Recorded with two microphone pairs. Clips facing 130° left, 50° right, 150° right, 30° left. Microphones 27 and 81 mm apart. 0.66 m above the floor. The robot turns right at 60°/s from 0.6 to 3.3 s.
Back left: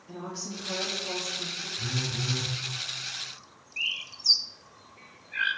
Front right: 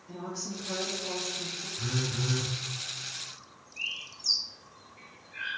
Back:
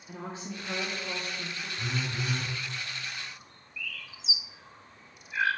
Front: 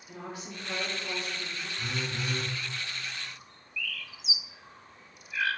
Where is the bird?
155° left, 0.7 m.